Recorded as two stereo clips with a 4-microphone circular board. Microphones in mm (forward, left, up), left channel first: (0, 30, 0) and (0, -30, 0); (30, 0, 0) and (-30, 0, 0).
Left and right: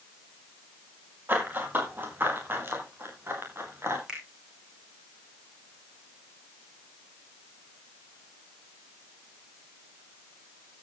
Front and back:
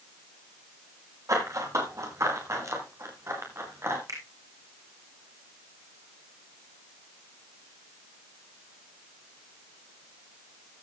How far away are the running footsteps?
About 7 m.